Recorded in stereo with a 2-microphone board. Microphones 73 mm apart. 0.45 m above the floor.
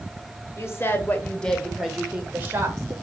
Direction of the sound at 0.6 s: 40° left (ahead or behind).